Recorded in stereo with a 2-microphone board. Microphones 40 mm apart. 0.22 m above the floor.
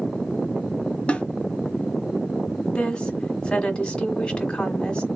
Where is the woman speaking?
25° left (ahead or behind), 1.3 m.